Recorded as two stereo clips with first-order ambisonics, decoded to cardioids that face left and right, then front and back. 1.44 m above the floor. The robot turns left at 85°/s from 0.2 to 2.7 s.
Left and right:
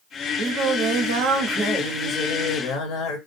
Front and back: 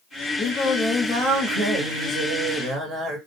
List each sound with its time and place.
0.4 s singing: 45° right, 0.7 m; by 3.2 s 120° left, 0.7 m